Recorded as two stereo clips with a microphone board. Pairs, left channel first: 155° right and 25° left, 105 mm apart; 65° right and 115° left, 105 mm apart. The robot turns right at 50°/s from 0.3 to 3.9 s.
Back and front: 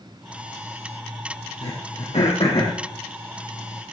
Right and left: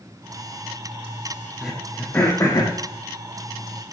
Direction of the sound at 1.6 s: 165° right.